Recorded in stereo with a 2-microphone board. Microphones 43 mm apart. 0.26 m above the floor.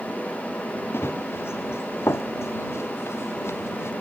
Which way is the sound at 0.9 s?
65° left (ahead or behind).